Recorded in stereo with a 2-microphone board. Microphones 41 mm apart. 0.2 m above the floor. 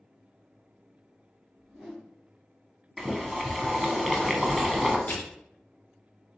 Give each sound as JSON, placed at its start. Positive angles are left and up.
{"t": 1.6, "sound": "a whoosh", "side_deg": -15, "distance_m": 1.8}
{"t": 3.0, "sound": "boiling", "side_deg": -5, "distance_m": 0.6}
{"t": 5.1, "sound": "crushing", "side_deg": 40, "distance_m": 1.3}